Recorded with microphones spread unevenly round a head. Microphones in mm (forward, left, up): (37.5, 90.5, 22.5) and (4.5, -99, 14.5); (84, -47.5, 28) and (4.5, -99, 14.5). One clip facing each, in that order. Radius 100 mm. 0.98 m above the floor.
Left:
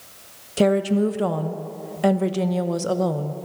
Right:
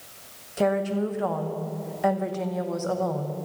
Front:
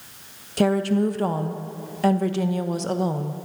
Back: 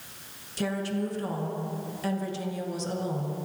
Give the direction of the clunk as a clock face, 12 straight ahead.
No clunk in this recording.